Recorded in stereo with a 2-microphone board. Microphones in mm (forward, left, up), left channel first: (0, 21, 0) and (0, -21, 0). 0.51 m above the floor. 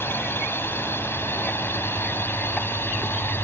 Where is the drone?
65° left (ahead or behind).